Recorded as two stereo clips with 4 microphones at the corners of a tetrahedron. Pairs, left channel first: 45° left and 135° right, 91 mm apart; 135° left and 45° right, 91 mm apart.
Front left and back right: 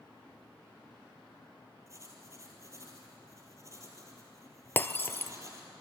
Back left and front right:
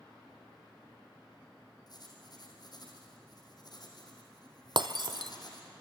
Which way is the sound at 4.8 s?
20° right.